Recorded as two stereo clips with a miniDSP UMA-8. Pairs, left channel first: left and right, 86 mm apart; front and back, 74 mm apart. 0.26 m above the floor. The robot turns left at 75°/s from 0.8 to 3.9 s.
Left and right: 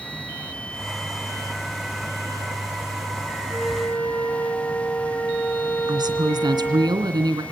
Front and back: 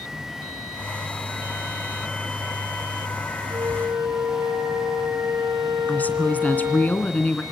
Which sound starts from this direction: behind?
A flute, at 3.5 s.